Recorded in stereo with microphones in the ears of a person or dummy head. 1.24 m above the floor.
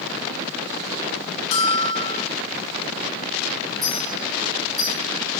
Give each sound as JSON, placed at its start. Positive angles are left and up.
{"t": 1.5, "sound": "a bell", "side_deg": 35, "distance_m": 1.0}
{"t": 3.8, "sound": "a clink", "side_deg": 0, "distance_m": 2.5}